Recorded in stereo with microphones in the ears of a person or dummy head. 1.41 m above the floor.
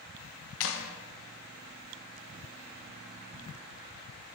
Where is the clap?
75° left (ahead or behind), 1.1 m.